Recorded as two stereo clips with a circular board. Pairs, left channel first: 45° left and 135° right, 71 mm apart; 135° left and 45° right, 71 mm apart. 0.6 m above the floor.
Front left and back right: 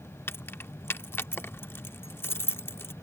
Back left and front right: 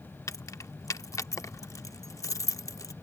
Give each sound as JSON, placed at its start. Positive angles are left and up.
{"t": 0.3, "sound": "keys jangling", "azimuth_deg": 100}